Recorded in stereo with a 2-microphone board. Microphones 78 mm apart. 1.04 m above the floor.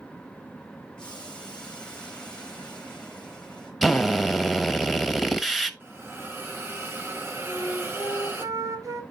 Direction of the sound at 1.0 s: 15° left (ahead or behind).